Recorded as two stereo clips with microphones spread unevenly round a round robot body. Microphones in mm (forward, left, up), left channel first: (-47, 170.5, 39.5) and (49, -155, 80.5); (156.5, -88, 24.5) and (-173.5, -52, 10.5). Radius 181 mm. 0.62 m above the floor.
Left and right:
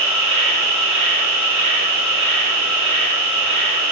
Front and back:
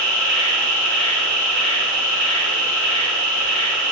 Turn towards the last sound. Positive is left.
turn(degrees=-90)